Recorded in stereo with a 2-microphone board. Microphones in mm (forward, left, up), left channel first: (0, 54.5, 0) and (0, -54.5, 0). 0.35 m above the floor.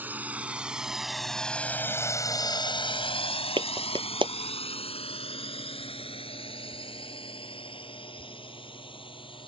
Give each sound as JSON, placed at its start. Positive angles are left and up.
{"t": 0.0, "sound": "a drone", "side_deg": -15}
{"t": 3.6, "sound": "a clap", "side_deg": -50}